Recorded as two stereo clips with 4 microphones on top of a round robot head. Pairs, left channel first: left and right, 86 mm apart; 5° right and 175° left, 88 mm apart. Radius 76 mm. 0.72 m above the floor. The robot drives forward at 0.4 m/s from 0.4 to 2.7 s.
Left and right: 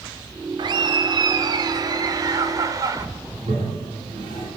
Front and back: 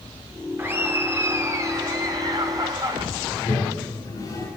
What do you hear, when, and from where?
0.6 s laughter: 115° right, 2 m; by 3.0 s 135° right, 2.5 m
3.3 s a toilet flushing: 65° right, 8.5 m